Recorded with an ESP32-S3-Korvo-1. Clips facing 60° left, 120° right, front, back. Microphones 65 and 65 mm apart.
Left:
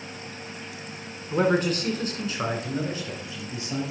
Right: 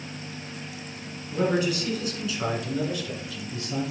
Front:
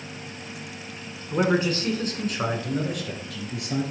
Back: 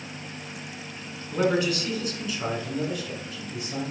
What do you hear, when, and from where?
1.3 s a man speaking: 60° left, 1.9 m; by 3.8 s 10° right, 3.5 m